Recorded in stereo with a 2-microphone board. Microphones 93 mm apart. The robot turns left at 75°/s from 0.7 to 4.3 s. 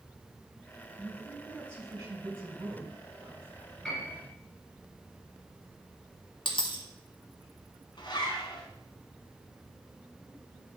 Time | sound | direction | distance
1.0 | a man speaking | 30° left | 3 m
3.8 | a piano | 5° left (ahead or behind) | 3 m
6.5 | a dropped coin | 65° left (ahead or behind) | 0.9 m
8.0 | a zipper | 55° left (ahead or behind) | 1.2 m